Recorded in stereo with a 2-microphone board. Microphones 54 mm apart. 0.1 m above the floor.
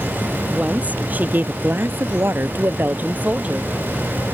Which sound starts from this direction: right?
A woman speaking, at 0.5 s.